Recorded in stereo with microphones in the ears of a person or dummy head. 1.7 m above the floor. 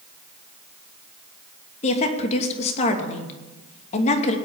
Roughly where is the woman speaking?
Left.